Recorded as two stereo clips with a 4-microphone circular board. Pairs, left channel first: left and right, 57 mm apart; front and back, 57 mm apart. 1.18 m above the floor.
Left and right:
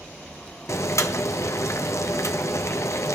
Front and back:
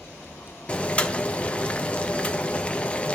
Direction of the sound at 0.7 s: 65° left.